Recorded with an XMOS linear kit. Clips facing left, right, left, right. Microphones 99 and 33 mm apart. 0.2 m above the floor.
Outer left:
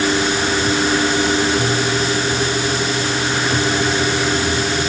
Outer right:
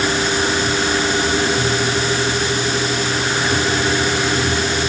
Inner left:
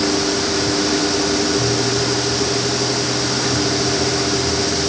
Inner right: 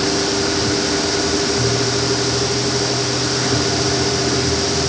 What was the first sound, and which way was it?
Only background noise.